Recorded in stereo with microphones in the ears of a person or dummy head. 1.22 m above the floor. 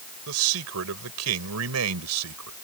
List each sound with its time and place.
0.3 s a man speaking: 70° right (ahead or behind); by 2.5 s 80° right